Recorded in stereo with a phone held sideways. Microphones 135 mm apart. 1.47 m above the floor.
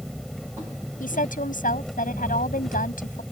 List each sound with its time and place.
0.0 s an engine running: centre (ahead or behind)
1.0 s a woman speaking: 90° left